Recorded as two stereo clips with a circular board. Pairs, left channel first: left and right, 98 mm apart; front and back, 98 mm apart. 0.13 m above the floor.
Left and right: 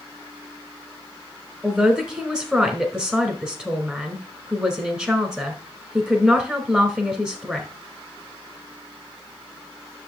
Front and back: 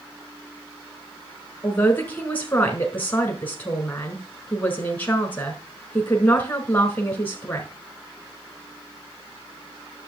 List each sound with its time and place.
1.6 s a man speaking: 25° right, 1.1 m